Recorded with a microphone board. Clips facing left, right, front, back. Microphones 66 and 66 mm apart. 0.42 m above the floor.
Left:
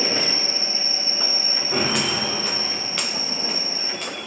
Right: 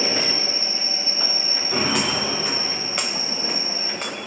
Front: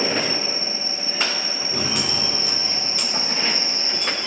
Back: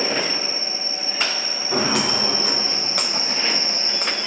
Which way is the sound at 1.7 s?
Straight behind.